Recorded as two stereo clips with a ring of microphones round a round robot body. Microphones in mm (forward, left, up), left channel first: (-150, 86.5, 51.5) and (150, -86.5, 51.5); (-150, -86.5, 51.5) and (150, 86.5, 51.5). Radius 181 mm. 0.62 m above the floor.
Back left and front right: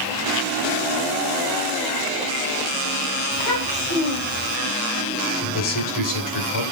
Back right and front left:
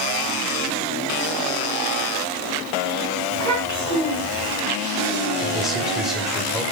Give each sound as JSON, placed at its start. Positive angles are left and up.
{"t": 3.3, "sound": "a child speaking", "azimuth_deg": 135, "distance_m": 4.5}
{"t": 5.4, "sound": "a man speaking", "azimuth_deg": 120, "distance_m": 2.5}